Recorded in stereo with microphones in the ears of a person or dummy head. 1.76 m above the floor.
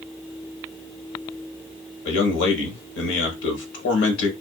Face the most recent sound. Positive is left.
turn(degrees=65)  # may be behind; listen again after turning